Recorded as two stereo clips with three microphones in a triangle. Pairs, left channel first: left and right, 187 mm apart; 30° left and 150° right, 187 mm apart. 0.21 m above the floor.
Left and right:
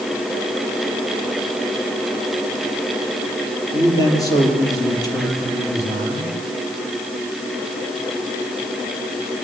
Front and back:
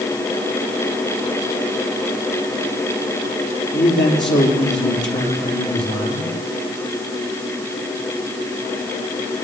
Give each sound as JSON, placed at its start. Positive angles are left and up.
{"t": 3.7, "sound": "a man speaking", "azimuth_deg": 20, "distance_m": 7.0}